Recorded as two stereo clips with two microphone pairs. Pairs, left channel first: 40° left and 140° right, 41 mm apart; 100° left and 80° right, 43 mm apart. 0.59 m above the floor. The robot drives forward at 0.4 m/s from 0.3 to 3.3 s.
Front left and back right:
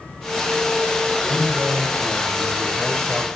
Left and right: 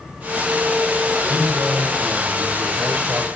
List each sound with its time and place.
1.2 s a man speaking: 35° right, 3 m; by 3.3 s 45° right, 2.5 m